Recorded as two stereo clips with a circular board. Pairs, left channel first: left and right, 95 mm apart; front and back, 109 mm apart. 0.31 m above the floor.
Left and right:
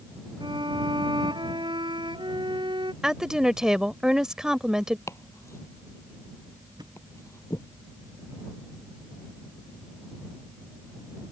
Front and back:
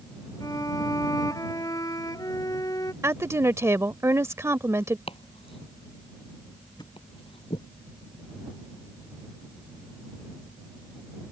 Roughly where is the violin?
Ahead right.